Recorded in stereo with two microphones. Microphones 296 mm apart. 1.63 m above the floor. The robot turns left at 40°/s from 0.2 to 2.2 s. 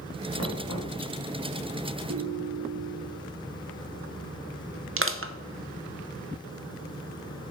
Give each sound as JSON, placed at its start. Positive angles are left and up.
{"t": 0.4, "sound": "knocking", "side_deg": 55, "distance_m": 2.5}
{"t": 2.1, "sound": "a ringtone", "side_deg": -55, "distance_m": 1.3}
{"t": 5.0, "sound": "crushing", "side_deg": -45, "distance_m": 0.8}